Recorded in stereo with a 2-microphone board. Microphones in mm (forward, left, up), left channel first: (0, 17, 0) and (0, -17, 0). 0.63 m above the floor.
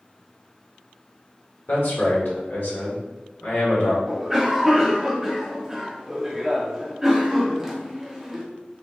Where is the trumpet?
I don't hear a trumpet.